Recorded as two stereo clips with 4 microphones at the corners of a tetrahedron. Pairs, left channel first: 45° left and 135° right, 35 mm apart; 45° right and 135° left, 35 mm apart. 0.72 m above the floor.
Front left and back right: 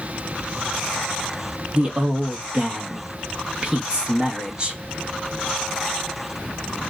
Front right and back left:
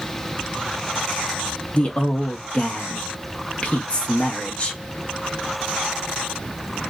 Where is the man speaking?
90° right, 0.9 m.